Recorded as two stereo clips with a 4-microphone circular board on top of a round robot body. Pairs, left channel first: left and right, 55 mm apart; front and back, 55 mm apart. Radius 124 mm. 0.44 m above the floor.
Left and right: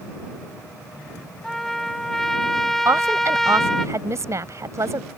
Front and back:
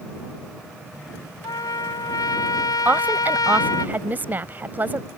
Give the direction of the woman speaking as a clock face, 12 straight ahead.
4 o'clock.